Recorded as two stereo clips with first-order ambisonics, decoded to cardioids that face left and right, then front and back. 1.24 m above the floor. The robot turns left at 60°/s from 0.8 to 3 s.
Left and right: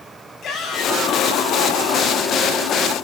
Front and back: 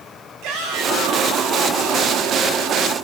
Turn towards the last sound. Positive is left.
turn(degrees=15)